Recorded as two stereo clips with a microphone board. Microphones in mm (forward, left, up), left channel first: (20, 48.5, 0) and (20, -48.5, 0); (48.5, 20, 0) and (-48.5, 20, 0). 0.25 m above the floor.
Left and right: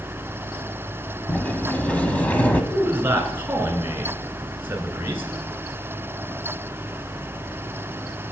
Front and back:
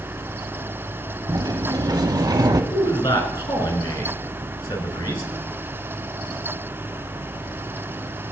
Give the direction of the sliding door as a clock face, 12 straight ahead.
7 o'clock.